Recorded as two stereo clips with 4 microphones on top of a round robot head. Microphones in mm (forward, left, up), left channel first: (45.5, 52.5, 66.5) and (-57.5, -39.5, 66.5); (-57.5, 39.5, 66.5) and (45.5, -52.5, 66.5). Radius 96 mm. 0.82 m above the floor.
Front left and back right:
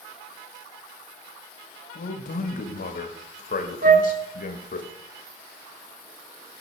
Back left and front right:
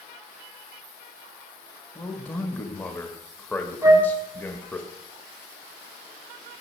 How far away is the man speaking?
About 1.3 m.